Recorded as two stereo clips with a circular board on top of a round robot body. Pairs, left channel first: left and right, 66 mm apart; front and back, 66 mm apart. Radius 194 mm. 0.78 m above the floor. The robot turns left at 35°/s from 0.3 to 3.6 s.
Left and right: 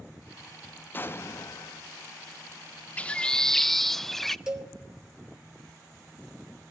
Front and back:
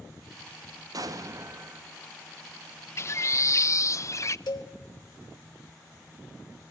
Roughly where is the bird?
Ahead left.